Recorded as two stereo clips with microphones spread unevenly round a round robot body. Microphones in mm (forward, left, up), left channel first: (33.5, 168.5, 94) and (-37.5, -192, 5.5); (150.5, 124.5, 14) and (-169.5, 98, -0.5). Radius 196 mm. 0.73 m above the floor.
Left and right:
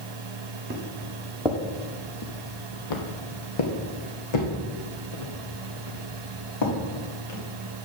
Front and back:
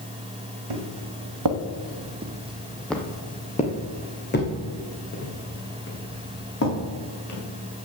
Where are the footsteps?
175° right, 2.0 m; by 7.4 s 50° left, 6 m.